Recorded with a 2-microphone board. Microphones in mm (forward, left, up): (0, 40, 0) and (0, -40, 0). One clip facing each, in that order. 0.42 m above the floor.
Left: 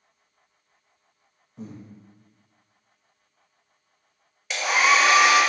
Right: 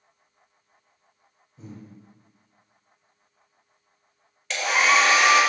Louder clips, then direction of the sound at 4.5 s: Even; 5° left (ahead or behind).